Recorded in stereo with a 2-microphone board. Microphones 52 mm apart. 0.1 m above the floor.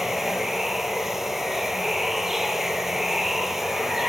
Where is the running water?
10° right (ahead or behind), 1.2 m.